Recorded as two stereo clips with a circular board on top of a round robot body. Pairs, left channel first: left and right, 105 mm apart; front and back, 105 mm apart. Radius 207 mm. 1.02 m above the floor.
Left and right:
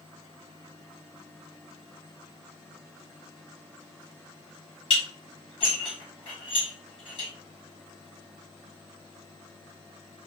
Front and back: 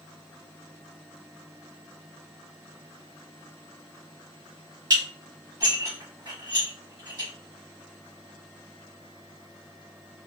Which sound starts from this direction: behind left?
Dishes clattering, at 4.9 s.